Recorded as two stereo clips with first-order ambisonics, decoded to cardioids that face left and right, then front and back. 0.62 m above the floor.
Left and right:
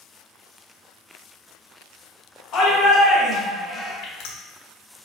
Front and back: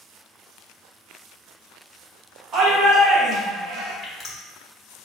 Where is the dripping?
70° left, 0.8 m.